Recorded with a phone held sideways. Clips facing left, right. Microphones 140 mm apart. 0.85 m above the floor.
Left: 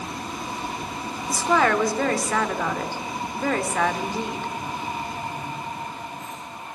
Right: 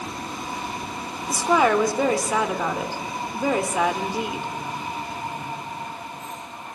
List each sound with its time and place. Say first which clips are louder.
1.3 s a woman speaking: right 2 dB; 10° right (ahead or behind), 3 m